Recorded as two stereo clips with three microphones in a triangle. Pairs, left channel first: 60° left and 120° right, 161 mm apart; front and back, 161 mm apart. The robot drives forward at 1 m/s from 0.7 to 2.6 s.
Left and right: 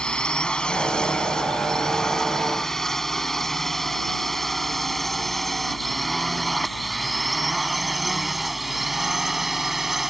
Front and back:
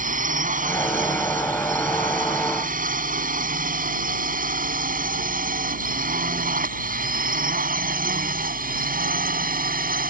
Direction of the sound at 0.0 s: 145° left.